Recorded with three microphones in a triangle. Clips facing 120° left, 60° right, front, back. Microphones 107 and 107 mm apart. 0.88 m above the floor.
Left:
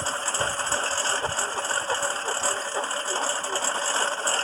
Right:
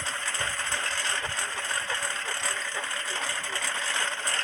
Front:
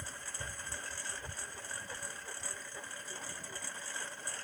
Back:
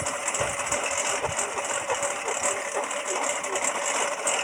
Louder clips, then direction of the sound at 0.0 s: Left 5 dB, back 18 dB; 175° left.